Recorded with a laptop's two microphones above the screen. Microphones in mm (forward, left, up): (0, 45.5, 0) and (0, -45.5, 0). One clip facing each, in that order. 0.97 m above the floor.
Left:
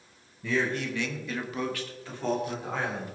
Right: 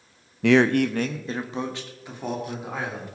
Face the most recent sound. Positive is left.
turn(degrees=-5)  # may be behind; listen again after turning